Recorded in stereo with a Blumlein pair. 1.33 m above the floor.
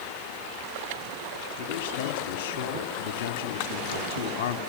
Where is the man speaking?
50° left, 3 m.